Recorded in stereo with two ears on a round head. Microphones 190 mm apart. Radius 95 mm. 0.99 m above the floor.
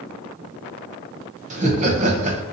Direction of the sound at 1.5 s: 35° right (ahead or behind).